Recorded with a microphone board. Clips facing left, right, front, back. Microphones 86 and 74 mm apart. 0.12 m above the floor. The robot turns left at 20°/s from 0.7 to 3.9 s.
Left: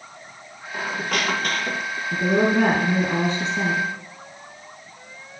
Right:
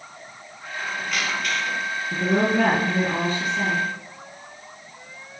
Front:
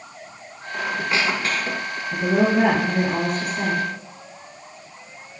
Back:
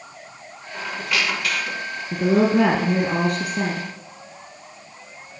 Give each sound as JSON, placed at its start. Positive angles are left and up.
{"t": 0.7, "sound": "a squeak", "azimuth_deg": 65, "distance_m": 1.8}
{"t": 2.1, "sound": "a woman speaking", "azimuth_deg": -175, "distance_m": 3.5}